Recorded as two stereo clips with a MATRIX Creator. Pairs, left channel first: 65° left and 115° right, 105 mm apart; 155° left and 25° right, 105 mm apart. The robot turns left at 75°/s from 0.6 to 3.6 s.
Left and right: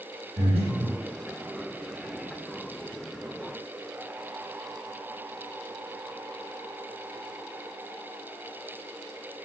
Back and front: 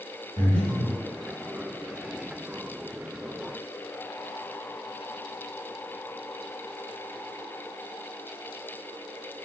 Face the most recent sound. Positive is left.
turn(degrees=10)